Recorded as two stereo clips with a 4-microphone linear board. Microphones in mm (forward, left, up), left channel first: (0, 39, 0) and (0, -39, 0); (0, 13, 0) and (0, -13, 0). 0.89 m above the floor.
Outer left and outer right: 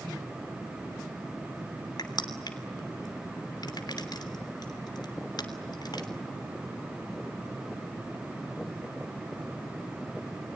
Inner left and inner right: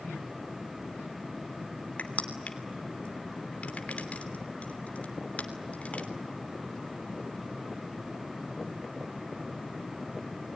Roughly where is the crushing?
Left.